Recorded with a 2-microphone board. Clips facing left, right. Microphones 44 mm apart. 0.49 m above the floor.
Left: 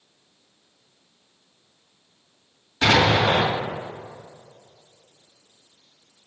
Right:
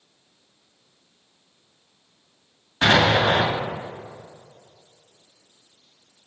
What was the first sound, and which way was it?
An explosion, 30° right (ahead or behind).